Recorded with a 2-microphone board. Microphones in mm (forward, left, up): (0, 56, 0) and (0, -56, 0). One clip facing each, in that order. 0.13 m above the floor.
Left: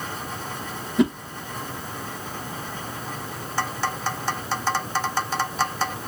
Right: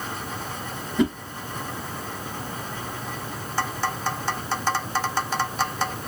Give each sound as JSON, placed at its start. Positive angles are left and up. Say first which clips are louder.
{"t": 1.0, "sound": "a whoosh", "louder": "left 2 dB", "side_deg": 5, "distance_m": 1.5}